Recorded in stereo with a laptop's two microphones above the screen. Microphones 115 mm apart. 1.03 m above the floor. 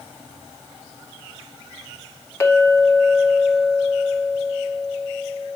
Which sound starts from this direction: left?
A clink, at 2.4 s.